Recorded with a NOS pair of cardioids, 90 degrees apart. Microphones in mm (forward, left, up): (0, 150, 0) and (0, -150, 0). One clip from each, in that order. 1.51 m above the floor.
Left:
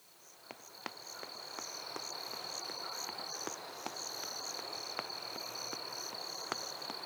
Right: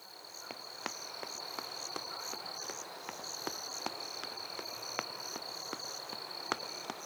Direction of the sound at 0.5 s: 25° right.